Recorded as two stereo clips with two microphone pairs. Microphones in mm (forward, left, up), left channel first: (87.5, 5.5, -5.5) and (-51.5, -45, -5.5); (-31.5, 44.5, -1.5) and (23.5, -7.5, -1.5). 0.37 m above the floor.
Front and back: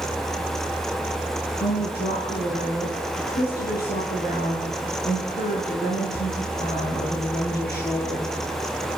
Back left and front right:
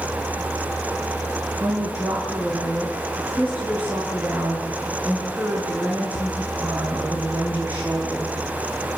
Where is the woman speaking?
25° left, 7 m.